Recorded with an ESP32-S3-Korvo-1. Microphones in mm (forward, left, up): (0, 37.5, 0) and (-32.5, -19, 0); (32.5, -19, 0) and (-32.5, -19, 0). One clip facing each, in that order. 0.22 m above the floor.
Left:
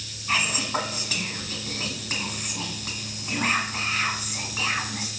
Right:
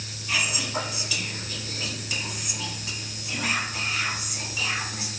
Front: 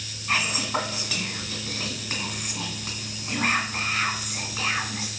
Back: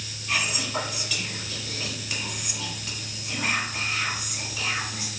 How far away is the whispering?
About 1.5 m.